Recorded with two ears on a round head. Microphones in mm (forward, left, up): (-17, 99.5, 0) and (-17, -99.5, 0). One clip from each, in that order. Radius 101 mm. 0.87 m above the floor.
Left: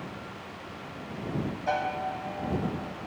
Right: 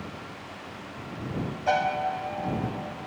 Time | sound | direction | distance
1.7 | a piano | 30° right (ahead or behind) | ?